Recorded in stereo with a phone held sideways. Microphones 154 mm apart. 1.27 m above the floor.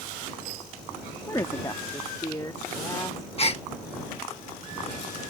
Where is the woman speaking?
20° left (ahead or behind); by 3.3 s 25° left (ahead or behind).